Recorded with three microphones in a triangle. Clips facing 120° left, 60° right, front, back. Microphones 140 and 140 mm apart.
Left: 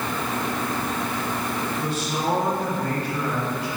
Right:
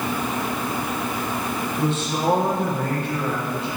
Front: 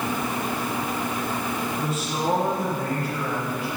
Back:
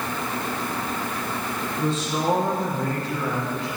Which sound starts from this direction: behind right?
A man speaking, at 1.8 s.